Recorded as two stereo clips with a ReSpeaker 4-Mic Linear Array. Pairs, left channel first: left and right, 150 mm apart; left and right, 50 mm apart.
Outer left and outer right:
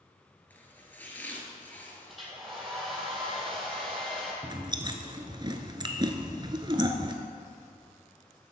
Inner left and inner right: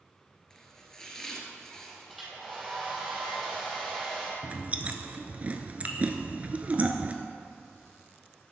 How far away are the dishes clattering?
I don't hear dishes clattering.